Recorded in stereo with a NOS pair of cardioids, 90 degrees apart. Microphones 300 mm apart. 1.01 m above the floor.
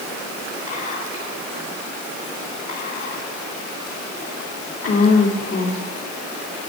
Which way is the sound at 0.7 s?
50° left.